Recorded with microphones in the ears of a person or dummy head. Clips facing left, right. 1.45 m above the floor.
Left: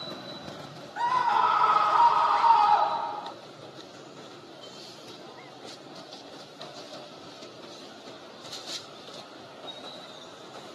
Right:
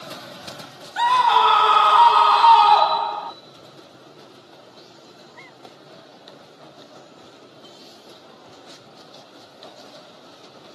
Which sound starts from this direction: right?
A scream, at 1.0 s.